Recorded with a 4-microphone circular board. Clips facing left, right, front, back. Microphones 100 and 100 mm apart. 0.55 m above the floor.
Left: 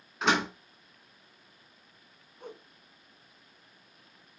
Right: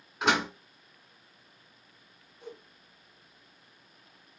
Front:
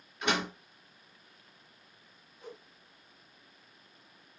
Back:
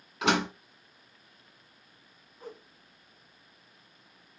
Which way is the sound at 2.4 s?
130° left.